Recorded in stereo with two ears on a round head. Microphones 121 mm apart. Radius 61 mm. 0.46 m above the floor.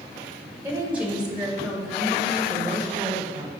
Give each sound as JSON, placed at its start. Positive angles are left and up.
{"t": 0.6, "sound": "a woman speaking", "side_deg": -15, "distance_m": 1.7}